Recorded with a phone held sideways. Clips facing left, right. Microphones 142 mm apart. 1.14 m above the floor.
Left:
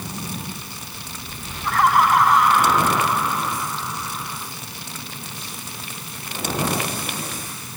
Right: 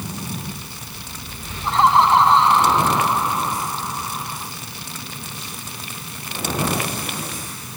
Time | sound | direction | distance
1.6 | laughter | 25° right (ahead or behind) | ?